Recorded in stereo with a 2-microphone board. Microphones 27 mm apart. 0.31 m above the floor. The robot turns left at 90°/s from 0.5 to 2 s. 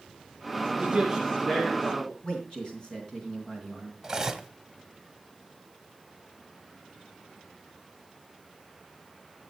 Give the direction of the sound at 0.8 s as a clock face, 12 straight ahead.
5 o'clock.